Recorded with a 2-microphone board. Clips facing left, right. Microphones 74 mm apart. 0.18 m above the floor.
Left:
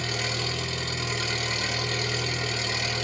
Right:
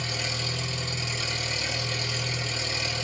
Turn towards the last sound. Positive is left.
turn(degrees=55)  # may be behind; listen again after turning